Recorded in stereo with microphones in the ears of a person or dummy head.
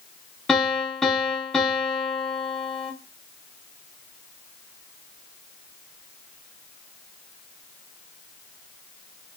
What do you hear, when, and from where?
0.5 s a piano: 5° left (ahead or behind), 1.0 m